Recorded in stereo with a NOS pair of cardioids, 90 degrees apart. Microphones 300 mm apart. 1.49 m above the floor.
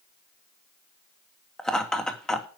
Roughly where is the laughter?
Ahead.